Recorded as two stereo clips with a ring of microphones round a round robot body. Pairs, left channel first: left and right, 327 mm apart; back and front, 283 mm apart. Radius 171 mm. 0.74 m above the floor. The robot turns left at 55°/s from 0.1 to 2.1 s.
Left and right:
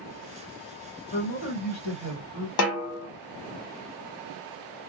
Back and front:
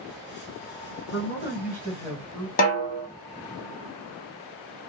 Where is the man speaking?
155° left, 1.7 m; by 2.5 s 100° left, 1.7 m.